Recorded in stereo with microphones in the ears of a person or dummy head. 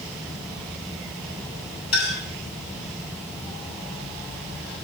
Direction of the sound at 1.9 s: 80° left.